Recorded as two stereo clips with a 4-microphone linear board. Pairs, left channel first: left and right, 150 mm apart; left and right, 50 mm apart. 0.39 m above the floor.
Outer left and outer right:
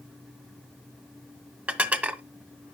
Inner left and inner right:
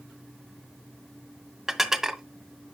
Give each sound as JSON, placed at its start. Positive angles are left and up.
{"t": 1.7, "sound": "dishes clattering", "side_deg": -10, "distance_m": 0.8}